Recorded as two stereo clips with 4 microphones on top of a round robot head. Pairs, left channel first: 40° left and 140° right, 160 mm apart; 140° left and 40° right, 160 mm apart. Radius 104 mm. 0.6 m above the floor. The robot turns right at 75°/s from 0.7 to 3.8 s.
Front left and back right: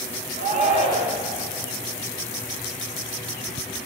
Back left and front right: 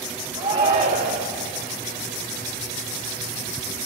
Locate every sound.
0.4 s a shout: 100° right, 2.5 m; by 1.3 s 55° right, 2.5 m